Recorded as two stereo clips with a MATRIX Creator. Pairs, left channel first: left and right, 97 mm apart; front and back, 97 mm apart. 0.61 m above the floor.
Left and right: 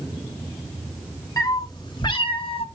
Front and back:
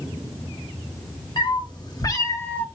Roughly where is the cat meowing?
Ahead left.